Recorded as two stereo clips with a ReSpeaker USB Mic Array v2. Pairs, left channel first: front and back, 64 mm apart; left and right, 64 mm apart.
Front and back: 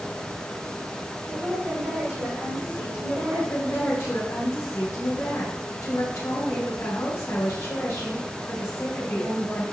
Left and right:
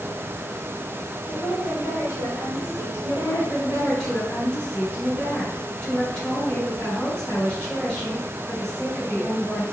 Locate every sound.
1.3 s a woman speaking: 125° right, 2.5 m
3.1 s a woman speaking: 15° left, 2.5 m